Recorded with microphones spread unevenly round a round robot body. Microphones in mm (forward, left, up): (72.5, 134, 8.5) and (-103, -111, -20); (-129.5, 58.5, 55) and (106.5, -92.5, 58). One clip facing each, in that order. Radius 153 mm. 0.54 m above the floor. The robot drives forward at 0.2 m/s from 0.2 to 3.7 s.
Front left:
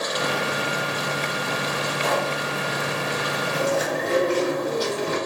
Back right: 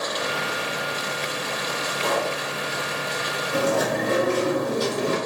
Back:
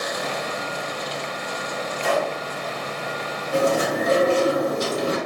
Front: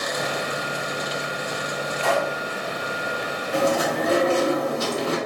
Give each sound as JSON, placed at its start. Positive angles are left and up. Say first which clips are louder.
{"t": 2.0, "sound": "a pop", "louder": "back right 1 dB, back 1 dB", "azimuth_deg": -145, "distance_m": 1.8}
{"t": 3.5, "sound": "chewing", "louder": "back right 2 dB, back 1 dB", "azimuth_deg": -145, "distance_m": 1.7}